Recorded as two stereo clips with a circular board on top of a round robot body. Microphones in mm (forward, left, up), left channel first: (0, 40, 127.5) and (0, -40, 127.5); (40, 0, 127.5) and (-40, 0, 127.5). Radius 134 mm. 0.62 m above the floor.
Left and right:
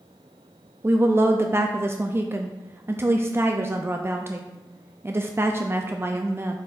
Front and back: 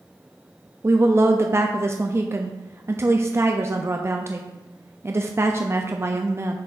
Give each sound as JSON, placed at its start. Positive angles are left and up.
{"t": 0.8, "sound": "a woman speaking", "azimuth_deg": -135, "distance_m": 0.7}